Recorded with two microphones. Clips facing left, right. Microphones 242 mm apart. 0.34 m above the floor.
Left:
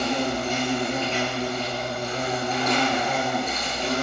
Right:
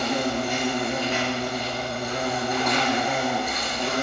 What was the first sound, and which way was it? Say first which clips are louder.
An insect: even; 10° right (ahead or behind).